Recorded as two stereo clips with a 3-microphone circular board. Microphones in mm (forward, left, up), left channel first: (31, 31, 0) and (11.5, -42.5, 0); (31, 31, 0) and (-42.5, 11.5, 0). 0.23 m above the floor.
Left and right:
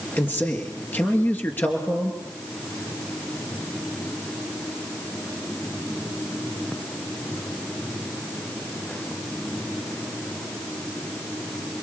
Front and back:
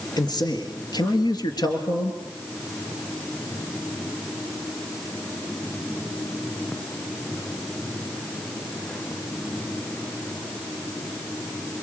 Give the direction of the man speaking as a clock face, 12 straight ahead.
12 o'clock.